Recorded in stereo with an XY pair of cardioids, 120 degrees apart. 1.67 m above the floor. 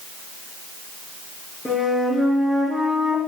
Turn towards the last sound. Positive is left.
turn(degrees=15)